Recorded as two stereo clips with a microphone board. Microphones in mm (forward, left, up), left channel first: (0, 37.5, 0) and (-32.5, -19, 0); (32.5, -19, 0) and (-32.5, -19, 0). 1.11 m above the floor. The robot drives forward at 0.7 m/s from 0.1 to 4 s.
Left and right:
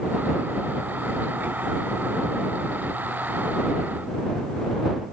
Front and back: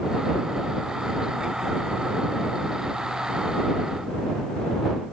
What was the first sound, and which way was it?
Only background noise.